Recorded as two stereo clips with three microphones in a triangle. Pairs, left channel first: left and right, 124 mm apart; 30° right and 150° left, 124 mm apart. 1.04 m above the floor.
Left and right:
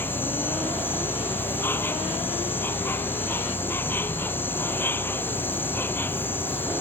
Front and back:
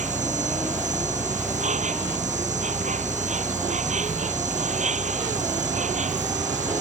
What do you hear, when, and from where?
0.0 s an insect: 165° left